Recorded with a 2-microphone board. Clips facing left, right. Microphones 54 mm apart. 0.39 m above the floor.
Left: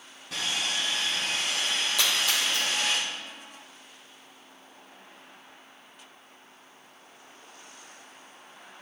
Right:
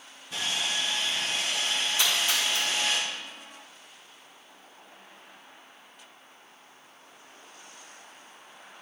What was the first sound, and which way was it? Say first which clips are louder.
Sawing: even; 70° left (ahead or behind).